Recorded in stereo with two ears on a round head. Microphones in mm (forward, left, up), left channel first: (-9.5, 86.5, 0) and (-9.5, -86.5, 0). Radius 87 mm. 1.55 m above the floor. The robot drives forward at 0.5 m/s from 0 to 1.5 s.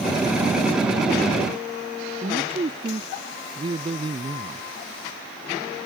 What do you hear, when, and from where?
2.2 s a man speaking: 30° right (ahead or behind)